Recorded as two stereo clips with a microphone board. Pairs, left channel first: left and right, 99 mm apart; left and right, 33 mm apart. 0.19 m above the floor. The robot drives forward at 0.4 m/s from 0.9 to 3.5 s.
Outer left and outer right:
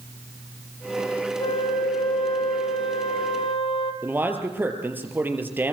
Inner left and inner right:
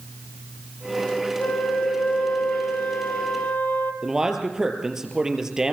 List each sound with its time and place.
1.4 s a flute: 75° left (ahead or behind), 4 m
4.0 s a man speaking: 20° right (ahead or behind), 4 m